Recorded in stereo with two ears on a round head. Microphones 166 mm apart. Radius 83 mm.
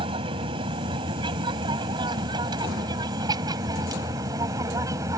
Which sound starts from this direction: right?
An aircraft, at 0.0 s.